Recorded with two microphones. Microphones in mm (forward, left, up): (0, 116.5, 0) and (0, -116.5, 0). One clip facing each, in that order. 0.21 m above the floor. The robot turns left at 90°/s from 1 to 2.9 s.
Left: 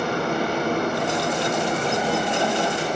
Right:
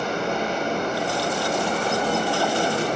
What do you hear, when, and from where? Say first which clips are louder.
0.0 s running water: left 2 dB; 110° left, 6 m; by 3.0 s 60° right, 6 m